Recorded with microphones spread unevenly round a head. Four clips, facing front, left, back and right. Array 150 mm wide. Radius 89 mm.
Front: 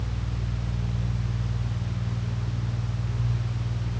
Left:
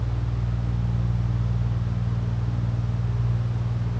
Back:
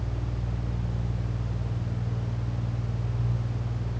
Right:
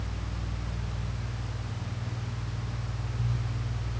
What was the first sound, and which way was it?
Only background noise.